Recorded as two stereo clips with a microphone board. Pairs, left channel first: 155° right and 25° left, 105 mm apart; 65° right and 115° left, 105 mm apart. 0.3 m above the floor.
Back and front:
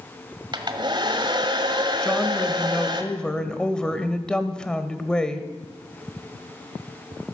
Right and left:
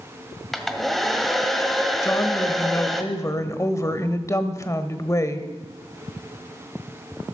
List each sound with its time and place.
0.5 s a hair dryer: 20° left, 1.4 m
2.0 s a woman speaking: 85° right, 1.1 m